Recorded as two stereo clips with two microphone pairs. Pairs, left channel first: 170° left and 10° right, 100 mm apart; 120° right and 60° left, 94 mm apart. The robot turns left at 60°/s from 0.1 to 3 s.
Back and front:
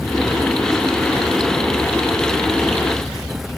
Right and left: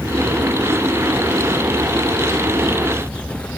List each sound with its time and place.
Only background noise.